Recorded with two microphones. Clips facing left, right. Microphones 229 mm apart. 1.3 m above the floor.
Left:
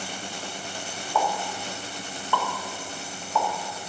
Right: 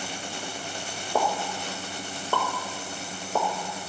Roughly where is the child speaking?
No child speaking in this recording.